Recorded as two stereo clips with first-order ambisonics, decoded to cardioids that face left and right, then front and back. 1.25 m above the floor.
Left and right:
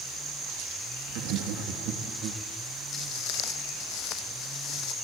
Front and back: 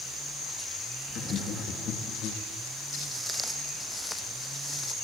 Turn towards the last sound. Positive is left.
turn(degrees=65)